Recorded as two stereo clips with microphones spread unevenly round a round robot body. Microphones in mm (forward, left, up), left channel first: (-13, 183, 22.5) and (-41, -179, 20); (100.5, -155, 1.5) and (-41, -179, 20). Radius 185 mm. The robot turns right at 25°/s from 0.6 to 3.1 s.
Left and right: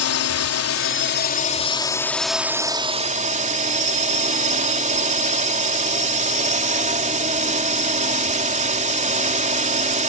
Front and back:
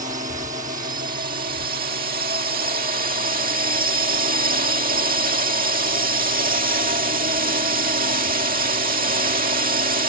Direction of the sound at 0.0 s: 135° left.